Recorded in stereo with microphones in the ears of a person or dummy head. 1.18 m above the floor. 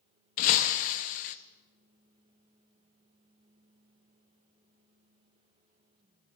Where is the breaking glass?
45° left (ahead or behind), 0.6 m.